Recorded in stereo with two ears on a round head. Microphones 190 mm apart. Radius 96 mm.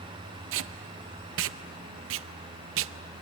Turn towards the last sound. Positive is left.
turn(degrees=-70)  # may be behind; listen again after turning